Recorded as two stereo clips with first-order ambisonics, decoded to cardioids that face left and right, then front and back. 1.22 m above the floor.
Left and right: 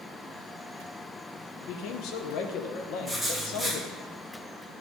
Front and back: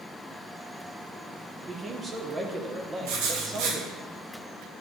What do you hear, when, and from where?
1.6 s a man speaking: 110° left, 0.8 m
3.0 s writing: 175° left, 1.1 m